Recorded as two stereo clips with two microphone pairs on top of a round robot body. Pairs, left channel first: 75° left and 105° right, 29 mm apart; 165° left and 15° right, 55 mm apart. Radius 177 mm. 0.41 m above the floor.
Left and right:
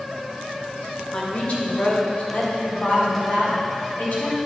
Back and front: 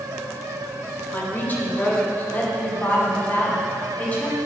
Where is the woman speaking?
110° left, 2.5 m; by 4.4 s 100° left, 4.5 m.